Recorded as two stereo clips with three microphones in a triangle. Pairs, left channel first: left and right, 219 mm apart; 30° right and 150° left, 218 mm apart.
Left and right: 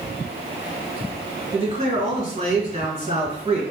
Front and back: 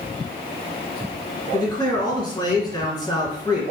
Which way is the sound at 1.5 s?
80° right.